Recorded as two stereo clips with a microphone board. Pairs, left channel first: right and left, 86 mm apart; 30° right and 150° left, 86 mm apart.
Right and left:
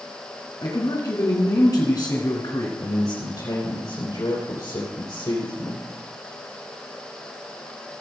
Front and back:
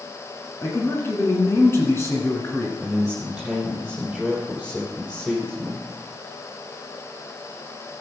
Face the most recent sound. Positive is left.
turn(degrees=-120)